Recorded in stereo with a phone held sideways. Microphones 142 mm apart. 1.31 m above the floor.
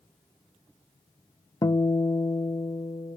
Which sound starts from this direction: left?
A guitar, at 1.6 s.